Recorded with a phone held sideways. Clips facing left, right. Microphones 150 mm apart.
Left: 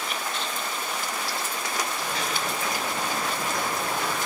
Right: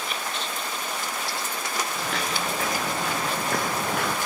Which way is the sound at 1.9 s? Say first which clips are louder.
Right 1 dB; 85° right.